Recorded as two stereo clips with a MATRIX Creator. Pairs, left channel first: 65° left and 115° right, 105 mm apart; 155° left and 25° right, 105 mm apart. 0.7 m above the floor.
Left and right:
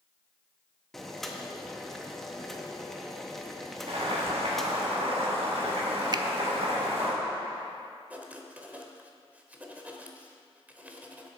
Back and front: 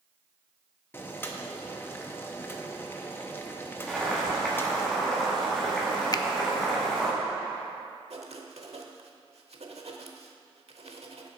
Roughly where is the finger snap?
Behind right.